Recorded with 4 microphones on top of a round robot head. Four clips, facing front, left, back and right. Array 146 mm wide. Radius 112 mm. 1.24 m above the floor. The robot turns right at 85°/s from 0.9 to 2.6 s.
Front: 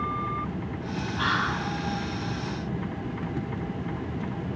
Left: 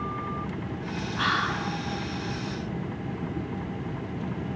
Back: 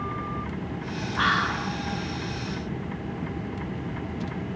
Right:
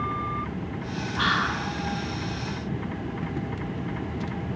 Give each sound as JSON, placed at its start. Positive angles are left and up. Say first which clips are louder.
{"t": 1.2, "sound": "whispering", "louder": "right 2 dB, back 3 dB", "azimuth_deg": -165, "distance_m": 0.7}